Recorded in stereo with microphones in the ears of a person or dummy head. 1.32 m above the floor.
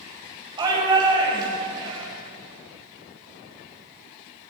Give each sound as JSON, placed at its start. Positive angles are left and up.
{"t": 0.6, "sound": "a shout", "side_deg": -25, "distance_m": 6.0}